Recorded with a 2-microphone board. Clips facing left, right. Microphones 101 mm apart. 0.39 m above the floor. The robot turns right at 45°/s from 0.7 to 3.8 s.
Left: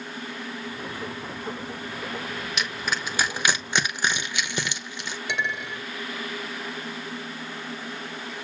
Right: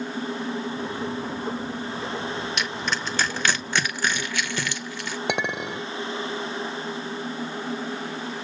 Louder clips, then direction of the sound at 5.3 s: Right 3 dB; 55° right (ahead or behind).